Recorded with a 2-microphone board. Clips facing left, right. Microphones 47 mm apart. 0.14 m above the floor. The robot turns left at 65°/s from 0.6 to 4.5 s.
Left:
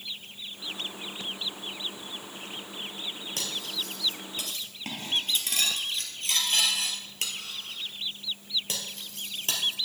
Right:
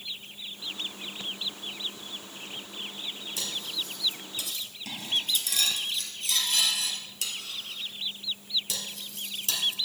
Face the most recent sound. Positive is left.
turn(degrees=40)  # may be behind; listen again after turning